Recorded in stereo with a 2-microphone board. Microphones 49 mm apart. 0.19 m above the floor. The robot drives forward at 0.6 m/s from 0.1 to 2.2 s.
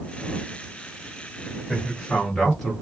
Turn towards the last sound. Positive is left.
turn(degrees=5)  # may be behind; listen again after turning